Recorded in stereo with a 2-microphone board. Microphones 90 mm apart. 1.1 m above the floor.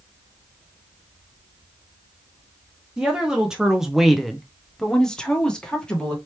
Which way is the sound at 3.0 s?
10° right (ahead or behind).